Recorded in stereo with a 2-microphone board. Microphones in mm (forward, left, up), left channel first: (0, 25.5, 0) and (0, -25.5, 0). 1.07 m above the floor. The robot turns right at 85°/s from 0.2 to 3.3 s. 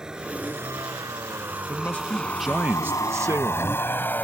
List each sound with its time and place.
0.0 s a vehicle: 10° right (ahead or behind); by 4.2 s 40° left (ahead or behind)
1.7 s a man speaking: 125° left; by 3.9 s 100° right